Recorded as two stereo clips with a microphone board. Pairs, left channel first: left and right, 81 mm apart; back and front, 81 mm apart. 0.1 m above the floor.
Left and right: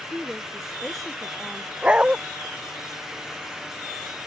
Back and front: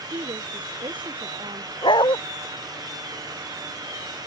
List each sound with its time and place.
0.1 s a woman speaking: straight ahead
1.8 s a dog barking: 165° right